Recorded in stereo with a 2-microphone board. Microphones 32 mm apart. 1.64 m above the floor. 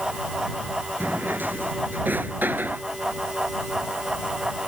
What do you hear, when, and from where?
1.0 s a drawer: 85° right